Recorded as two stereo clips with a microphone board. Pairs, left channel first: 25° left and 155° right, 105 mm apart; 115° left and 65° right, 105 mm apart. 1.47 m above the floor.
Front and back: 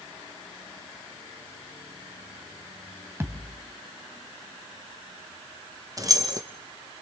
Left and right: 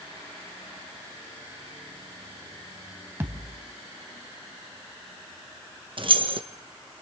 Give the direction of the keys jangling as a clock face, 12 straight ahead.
3 o'clock.